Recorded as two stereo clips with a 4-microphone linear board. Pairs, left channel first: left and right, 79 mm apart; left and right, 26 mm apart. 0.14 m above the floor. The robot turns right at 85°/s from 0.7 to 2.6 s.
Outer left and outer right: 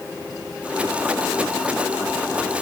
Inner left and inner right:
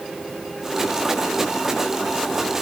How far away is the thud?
I don't hear a thud.